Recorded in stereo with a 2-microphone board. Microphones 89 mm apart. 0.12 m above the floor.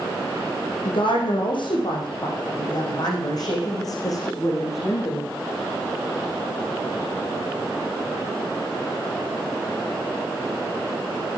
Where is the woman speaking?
70° left (ahead or behind), 6.5 m; by 5.3 s 30° left (ahead or behind), 7.5 m.